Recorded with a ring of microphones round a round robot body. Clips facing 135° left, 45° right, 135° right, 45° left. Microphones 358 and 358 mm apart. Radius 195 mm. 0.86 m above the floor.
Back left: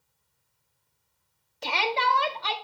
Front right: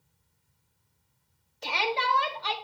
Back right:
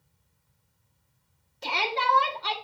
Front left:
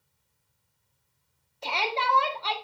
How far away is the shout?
About 1.7 m.